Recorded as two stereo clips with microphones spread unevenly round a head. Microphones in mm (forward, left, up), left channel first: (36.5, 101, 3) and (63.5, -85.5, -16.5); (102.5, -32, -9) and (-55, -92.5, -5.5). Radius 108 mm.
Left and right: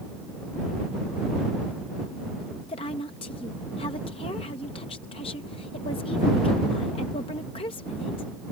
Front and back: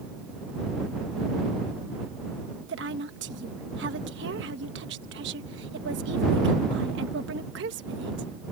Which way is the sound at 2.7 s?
165° left.